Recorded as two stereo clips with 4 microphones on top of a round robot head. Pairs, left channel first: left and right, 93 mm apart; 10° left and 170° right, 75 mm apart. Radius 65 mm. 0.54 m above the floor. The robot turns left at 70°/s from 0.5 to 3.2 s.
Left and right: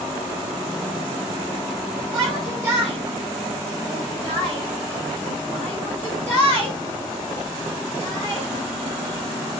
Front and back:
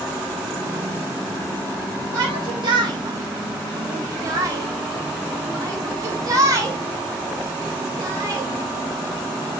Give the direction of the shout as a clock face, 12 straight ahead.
4 o'clock.